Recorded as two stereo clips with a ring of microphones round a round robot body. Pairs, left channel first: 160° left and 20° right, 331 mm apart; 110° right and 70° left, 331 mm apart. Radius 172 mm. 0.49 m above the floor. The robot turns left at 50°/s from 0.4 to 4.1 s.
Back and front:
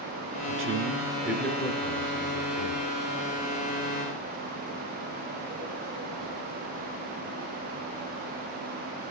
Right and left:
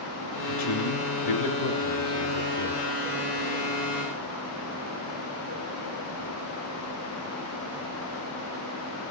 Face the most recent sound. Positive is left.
turn(degrees=110)